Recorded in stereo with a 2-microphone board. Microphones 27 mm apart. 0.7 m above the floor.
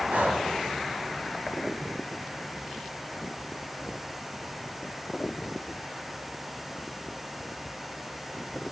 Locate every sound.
0.1 s breathing: 75° right (ahead or behind), 2.5 m